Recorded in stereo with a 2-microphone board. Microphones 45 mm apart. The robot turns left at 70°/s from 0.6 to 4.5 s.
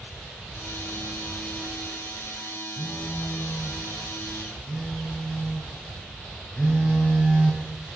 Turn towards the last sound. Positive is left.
turn(degrees=5)